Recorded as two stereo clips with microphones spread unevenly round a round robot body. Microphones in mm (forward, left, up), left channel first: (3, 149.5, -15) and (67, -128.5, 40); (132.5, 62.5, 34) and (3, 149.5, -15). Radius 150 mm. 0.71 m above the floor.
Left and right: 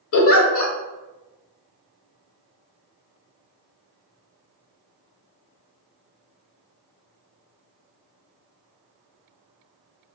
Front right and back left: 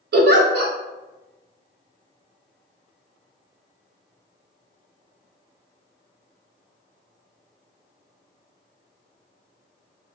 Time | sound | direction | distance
0.1 | a giggle | 150° left | 0.6 m